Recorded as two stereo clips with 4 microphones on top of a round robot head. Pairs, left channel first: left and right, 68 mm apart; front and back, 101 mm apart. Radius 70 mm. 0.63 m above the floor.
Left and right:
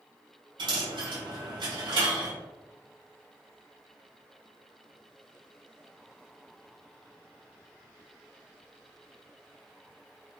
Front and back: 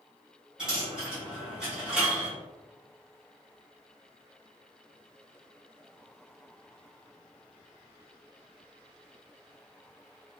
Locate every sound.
0.6 s a dropped coin: 95° right, 1.0 m